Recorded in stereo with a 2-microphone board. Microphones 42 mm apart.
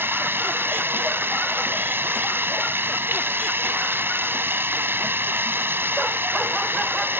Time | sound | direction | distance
0.0 | running water | 70° right (ahead or behind) | ?